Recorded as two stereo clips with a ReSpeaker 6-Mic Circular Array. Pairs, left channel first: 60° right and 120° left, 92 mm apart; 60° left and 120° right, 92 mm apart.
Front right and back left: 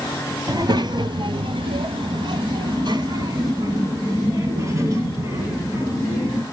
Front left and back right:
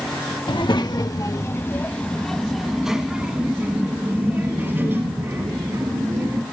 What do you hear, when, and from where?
0.5 s a child speaking: 80° left, 1.2 m; by 6.4 s straight behind, 3.5 m